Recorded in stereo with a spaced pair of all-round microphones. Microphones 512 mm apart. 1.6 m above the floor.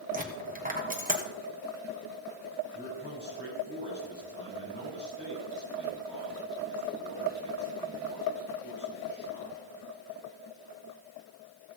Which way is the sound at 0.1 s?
15° right (ahead or behind).